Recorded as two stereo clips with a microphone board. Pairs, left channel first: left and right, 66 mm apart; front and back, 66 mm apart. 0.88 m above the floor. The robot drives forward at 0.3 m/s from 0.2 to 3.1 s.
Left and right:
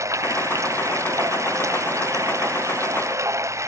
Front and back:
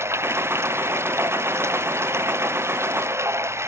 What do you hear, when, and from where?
0.0 s running water: 130° right; by 3.7 s 135° right